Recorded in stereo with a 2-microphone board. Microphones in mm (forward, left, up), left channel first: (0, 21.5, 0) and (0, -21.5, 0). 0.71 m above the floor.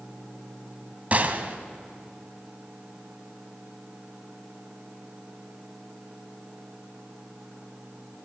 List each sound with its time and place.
1.1 s a gunshot: 35° right (ahead or behind), 1.2 m